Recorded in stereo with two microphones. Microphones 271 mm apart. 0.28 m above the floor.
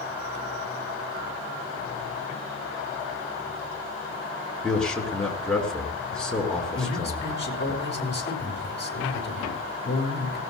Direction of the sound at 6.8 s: 40° left (ahead or behind).